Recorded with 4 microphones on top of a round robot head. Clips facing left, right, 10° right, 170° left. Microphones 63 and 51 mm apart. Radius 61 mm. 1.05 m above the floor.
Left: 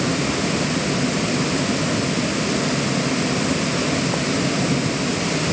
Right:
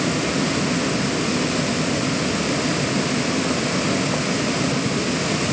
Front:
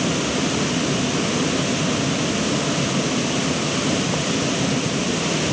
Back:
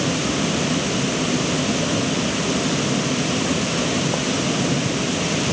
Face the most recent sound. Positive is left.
No sound to turn to.